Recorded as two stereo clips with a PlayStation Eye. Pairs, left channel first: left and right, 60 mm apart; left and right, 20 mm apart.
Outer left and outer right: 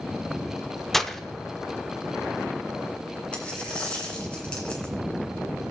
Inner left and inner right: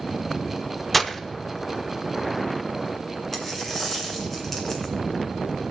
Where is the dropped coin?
15° left (ahead or behind), 2 m.